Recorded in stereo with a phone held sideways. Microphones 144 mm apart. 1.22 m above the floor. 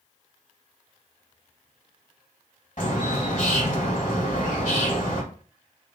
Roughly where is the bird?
Left.